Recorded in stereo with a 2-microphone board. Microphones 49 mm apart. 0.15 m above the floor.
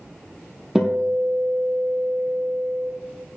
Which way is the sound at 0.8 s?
10° right (ahead or behind).